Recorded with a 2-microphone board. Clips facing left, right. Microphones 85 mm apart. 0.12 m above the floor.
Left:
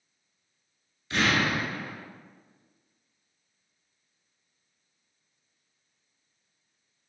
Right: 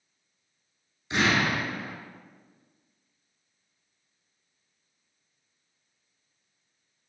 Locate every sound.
1.1 s an explosion: 20° right (ahead or behind), 1.2 m